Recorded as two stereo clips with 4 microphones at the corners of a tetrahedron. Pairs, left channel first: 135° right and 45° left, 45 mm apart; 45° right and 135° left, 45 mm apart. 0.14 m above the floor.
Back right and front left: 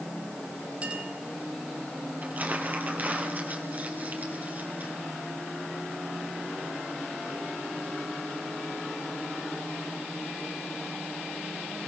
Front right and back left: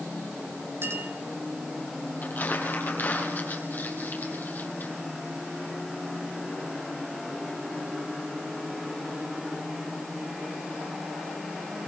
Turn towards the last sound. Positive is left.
turn(degrees=0)